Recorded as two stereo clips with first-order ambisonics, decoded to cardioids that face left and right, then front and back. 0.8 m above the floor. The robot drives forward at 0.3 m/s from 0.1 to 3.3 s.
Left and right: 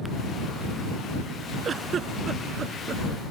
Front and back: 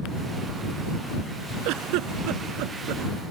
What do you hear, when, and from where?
1.6 s a giggle: 155° right